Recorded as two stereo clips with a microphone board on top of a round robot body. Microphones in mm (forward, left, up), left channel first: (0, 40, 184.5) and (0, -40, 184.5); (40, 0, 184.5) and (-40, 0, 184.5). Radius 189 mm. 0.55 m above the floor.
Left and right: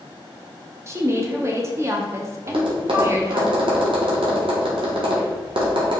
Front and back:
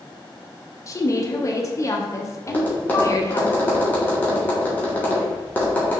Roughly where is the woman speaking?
Ahead right.